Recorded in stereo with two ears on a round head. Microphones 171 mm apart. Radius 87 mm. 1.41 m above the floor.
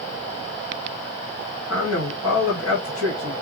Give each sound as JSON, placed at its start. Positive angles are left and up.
{"t": 1.7, "sound": "a man speaking", "side_deg": 80, "distance_m": 1.5}